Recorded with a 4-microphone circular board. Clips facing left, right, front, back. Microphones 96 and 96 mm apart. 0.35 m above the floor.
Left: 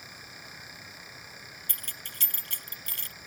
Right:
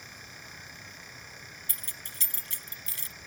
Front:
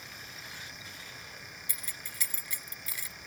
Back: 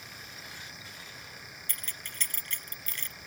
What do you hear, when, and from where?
1.7 s keys jangling: 80° left